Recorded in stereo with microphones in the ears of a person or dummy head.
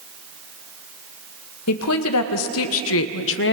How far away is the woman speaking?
About 2.5 m.